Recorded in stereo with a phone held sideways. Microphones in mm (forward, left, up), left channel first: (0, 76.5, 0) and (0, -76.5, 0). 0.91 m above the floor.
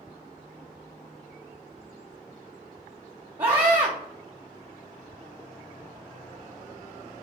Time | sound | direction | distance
3.4 | a scream | 30° right (ahead or behind) | 0.7 m